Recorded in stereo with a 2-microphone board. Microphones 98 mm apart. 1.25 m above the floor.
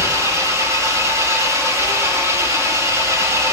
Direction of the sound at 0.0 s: 30° right (ahead or behind).